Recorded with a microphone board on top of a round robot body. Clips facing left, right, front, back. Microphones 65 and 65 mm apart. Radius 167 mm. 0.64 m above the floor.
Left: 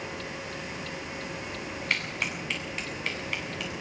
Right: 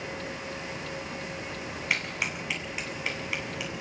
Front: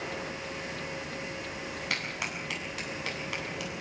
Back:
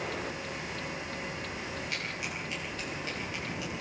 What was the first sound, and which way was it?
A clap, 5° right.